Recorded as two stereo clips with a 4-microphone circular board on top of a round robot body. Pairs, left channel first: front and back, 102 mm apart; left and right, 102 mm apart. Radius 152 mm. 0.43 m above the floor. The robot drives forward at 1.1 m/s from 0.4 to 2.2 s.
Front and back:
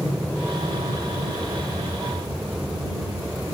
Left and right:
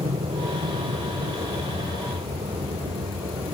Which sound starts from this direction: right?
An aircraft, at 0.0 s.